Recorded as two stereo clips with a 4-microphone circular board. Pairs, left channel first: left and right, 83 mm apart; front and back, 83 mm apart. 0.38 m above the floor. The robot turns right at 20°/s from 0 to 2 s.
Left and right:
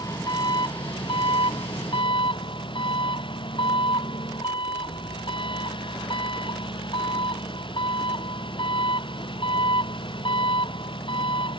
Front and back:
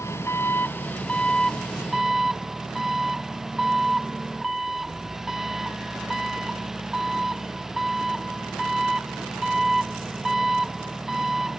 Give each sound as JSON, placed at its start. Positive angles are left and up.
{"t": 0.0, "sound": "an engine running", "azimuth_deg": 55}